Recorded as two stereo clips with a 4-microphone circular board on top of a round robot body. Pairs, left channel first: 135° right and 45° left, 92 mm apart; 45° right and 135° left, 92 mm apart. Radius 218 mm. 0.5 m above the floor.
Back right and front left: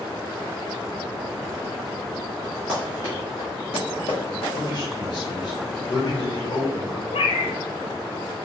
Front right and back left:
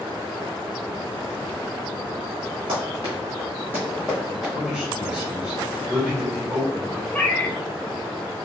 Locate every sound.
2.7 s running footsteps: 140° left, 0.8 m; by 4.5 s 135° right, 1.6 m
4.5 s a man speaking: 145° right, 1.9 m
7.1 s a cat meowing: 120° right, 0.6 m